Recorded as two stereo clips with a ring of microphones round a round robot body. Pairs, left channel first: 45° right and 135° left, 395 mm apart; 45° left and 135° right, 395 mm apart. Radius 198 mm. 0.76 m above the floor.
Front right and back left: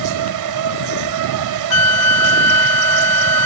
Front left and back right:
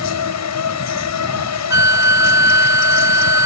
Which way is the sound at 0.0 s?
95° left.